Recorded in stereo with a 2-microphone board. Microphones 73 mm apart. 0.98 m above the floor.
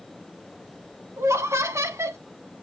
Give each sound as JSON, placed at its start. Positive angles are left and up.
{"t": 1.2, "sound": "laughter", "side_deg": -40, "distance_m": 1.0}